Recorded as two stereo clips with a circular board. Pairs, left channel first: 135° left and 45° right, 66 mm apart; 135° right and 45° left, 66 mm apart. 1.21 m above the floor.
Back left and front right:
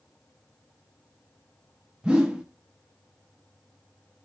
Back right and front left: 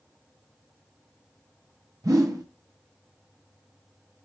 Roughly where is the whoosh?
Ahead left.